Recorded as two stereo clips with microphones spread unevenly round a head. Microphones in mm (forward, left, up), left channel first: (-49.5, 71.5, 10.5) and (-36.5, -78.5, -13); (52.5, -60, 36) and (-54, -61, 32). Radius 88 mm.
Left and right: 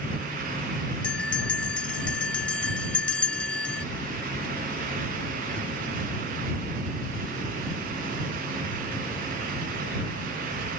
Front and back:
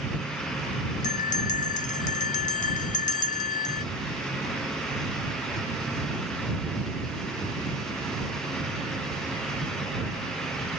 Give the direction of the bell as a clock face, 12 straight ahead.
12 o'clock.